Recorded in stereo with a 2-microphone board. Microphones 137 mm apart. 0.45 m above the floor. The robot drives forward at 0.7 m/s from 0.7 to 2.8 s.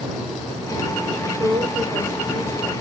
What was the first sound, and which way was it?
A woman speaking, 35° right (ahead or behind).